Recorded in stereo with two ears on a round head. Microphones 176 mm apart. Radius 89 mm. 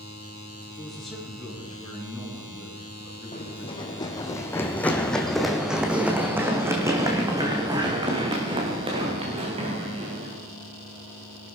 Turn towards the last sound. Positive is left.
turn(degrees=-35)  # may be behind; listen again after turning